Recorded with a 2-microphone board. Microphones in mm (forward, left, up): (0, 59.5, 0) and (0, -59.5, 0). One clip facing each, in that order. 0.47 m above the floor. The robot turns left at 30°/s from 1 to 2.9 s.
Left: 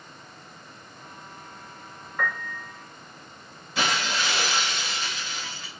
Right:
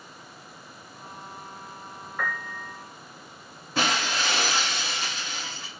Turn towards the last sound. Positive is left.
turn(degrees=-45)  # may be behind; listen again after turning